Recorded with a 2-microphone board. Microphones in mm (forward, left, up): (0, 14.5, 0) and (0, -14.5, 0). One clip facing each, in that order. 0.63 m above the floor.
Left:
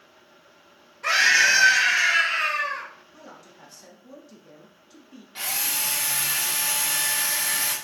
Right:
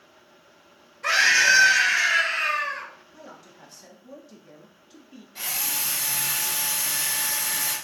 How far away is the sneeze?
No sneeze in this recording.